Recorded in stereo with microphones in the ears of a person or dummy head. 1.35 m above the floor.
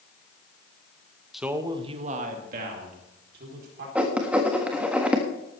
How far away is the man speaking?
About 1.0 m.